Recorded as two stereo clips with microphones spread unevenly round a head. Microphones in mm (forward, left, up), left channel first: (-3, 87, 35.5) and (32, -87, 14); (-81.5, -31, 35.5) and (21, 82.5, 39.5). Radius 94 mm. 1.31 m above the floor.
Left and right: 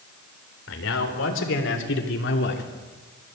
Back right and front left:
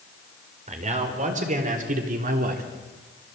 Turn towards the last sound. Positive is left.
turn(degrees=75)